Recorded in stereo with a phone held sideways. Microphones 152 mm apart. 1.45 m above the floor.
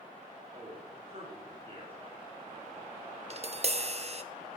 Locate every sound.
0.5 s a man speaking: 40° right (ahead or behind), 3 m
3.3 s tapping: 45° right (ahead or behind), 0.5 m